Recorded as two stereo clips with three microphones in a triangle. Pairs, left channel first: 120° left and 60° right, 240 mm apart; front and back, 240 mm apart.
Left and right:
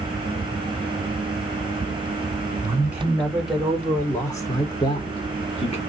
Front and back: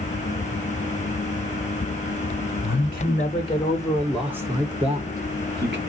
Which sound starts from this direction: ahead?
A man speaking, at 2.6 s.